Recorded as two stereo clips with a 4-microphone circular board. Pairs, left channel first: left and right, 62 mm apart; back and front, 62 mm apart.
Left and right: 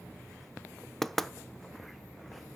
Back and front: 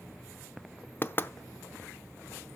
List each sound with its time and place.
1.0 s knocking: 170° left, 0.6 m